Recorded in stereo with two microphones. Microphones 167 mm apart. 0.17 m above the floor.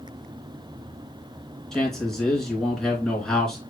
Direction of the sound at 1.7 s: 5° left (ahead or behind).